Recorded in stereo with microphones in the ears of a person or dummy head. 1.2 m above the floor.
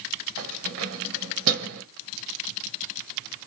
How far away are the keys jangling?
About 0.8 m.